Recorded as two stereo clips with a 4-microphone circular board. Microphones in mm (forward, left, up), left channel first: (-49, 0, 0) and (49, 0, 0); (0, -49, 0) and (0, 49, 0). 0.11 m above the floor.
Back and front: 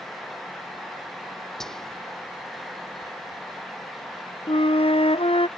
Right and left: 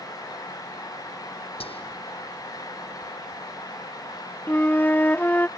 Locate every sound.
1.6 s whispering: 95° right
4.5 s a flute: 165° right